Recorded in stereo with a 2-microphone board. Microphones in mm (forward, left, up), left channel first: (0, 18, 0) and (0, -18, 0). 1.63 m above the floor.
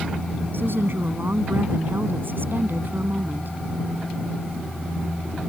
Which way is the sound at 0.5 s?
75° right (ahead or behind).